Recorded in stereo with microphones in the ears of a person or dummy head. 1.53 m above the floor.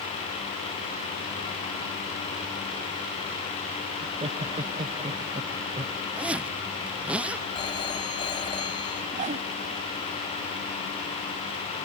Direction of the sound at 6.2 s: 5° right (ahead or behind).